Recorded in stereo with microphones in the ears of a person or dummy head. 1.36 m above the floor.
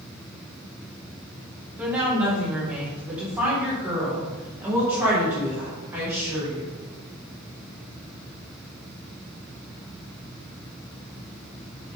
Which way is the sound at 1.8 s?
5° right (ahead or behind).